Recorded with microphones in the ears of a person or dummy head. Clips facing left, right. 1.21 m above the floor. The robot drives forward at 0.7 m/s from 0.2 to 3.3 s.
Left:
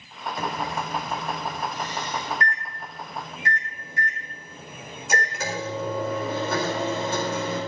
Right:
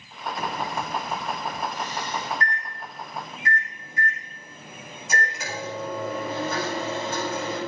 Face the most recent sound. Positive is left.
turn(degrees=60)  # may be behind; listen again after turning